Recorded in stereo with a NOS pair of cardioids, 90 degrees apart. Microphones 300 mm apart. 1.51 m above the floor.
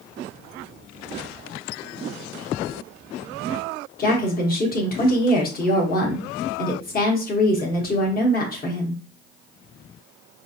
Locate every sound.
4.0 s a woman speaking: 30° left, 1.2 m